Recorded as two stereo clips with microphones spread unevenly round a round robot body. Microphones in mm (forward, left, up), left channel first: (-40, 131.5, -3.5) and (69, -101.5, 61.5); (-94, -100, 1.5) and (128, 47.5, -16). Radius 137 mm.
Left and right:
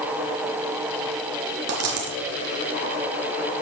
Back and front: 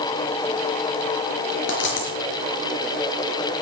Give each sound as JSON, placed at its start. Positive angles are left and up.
{"t": 1.7, "sound": "a dropped coin", "azimuth_deg": -100, "distance_m": 4.0}